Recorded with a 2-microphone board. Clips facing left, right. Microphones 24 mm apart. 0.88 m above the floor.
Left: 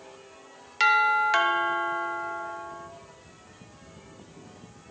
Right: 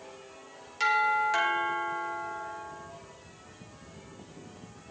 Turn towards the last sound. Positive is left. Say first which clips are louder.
# left 4 dB
turn(degrees=35)  # may be behind; listen again after turning